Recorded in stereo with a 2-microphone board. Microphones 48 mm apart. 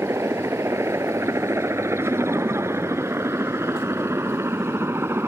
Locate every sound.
0.0 s a helicopter: 75° right (ahead or behind); by 5.3 s 60° right (ahead or behind)
2.0 s laughter: 60° right (ahead or behind)